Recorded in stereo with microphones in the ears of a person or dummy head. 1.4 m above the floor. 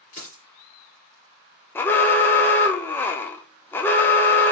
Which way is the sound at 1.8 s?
15° left (ahead or behind).